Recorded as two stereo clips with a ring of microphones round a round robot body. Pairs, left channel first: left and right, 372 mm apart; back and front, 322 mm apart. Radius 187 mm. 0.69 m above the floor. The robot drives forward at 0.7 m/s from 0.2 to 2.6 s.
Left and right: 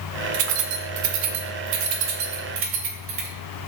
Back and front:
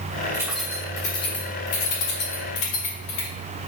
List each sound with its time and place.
0.3 s keys jangling: 80° right, 1.0 m; by 3.3 s 145° right, 1.7 m